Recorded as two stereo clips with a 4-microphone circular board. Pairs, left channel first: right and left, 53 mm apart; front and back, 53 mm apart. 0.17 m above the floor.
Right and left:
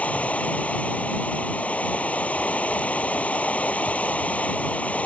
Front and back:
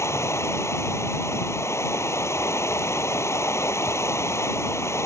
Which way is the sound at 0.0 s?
30° right.